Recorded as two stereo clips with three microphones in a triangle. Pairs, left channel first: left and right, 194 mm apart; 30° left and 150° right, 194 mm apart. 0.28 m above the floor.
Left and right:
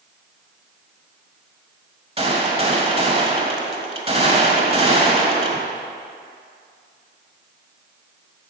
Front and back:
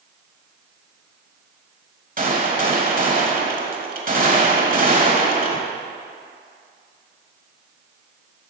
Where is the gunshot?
135° right, 1.2 m.